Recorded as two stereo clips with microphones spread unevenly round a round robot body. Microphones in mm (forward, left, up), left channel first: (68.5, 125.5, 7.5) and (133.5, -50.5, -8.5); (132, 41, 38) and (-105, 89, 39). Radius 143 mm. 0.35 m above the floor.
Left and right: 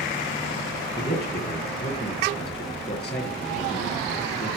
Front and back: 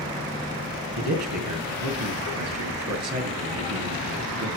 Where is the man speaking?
Straight behind, 4 m.